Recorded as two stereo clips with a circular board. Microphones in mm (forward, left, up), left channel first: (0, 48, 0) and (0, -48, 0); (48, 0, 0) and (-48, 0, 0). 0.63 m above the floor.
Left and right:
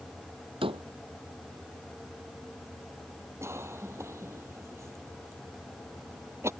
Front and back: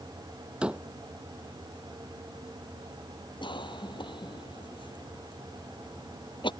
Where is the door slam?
100° right.